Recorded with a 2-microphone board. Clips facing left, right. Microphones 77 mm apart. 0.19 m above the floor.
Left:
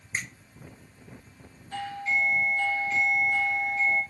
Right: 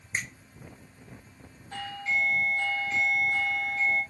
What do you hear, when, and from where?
0.1 s a finger snap: 5° right (ahead or behind), 0.9 m
1.7 s a doorbell: 10° right (ahead or behind), 1.6 m